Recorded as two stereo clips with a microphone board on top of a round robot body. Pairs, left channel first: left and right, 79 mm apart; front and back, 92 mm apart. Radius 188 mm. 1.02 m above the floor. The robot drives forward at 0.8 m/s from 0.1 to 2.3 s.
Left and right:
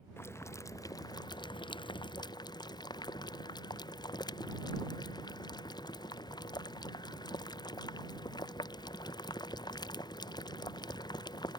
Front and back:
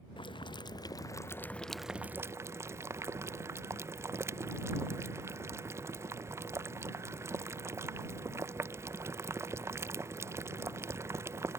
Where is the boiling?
30° left; by 11.6 s 120° left.